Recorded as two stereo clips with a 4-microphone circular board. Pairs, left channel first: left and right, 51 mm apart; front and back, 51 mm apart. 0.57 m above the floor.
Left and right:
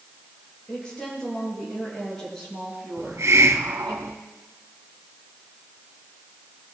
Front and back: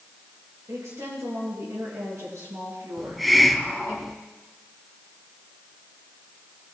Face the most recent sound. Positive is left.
turn(degrees=-90)